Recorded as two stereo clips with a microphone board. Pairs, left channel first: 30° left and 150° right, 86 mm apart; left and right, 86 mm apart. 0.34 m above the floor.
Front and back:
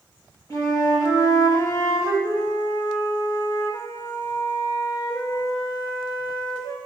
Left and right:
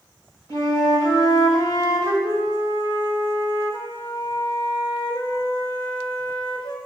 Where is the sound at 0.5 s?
65° left, 2 m.